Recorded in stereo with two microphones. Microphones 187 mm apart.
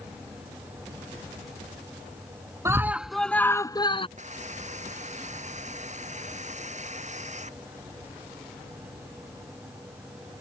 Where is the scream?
15° right (ahead or behind); by 4.1 s 30° left (ahead or behind).